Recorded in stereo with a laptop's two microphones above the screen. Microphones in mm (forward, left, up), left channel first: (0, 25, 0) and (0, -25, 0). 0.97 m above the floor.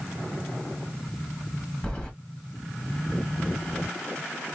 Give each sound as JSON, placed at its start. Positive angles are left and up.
{"t": 1.8, "sound": "keys jangling", "side_deg": 15, "distance_m": 1.2}